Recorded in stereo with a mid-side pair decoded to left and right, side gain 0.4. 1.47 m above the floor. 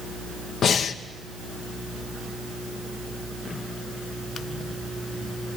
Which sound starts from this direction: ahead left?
Breathing, at 0.6 s.